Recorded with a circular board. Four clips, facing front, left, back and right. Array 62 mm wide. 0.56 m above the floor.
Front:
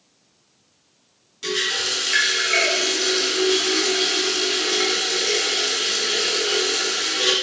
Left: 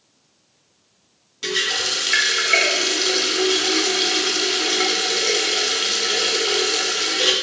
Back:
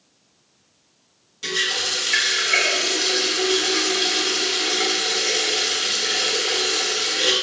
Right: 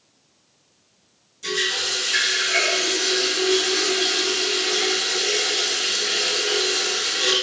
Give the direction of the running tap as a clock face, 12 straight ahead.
9 o'clock.